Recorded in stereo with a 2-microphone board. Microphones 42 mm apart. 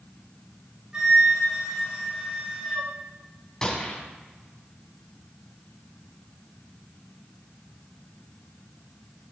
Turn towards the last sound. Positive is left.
turn(degrees=10)  # may be behind; listen again after turning